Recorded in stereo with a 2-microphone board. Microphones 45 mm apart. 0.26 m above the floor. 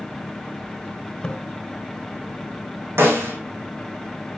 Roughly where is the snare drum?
Right.